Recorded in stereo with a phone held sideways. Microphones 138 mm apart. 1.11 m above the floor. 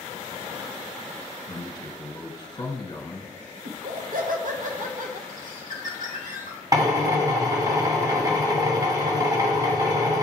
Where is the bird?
75° right (ahead or behind), 1.9 m.